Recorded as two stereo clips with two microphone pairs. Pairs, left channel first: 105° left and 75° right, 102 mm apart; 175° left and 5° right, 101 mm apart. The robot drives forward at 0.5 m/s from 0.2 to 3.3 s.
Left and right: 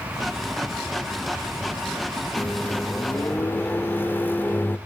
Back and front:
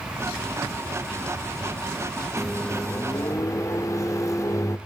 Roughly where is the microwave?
Left.